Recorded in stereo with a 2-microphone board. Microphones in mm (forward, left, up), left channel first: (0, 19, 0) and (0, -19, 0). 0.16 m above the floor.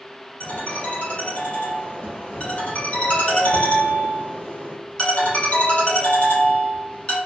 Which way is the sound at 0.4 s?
35° left (ahead or behind).